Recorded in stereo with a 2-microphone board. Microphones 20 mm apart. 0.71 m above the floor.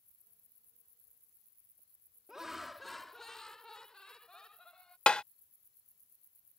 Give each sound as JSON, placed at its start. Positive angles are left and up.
{"t": 2.3, "sound": "laughter", "side_deg": -30}
{"t": 5.1, "sound": "tapping", "side_deg": 65}